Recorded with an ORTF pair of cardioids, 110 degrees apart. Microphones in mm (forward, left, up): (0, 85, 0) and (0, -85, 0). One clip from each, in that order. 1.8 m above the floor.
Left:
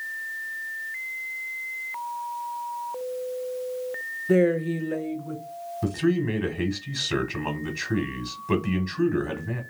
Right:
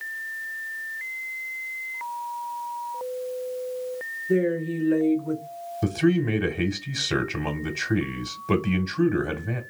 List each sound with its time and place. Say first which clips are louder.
4.3 s a woman speaking: left 3 dB; 60° left, 0.7 m; by 5.4 s 25° right, 1.0 m
5.8 s a man speaking: right 2 dB; 20° right, 0.9 m